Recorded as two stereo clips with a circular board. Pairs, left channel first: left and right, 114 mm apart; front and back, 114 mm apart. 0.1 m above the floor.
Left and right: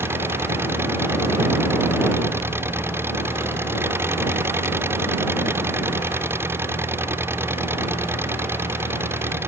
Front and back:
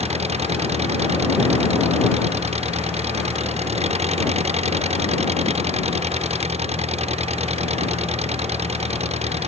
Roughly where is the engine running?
Behind.